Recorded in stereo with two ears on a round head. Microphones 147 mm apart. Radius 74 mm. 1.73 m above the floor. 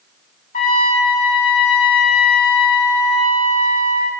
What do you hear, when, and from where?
0.5 s a trumpet: 50° left (ahead or behind), 3 m